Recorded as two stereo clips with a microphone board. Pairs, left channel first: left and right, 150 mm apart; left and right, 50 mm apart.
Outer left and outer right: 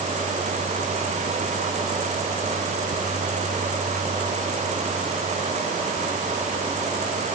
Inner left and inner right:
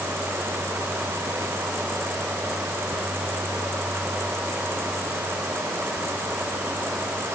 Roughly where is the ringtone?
I don't hear a ringtone.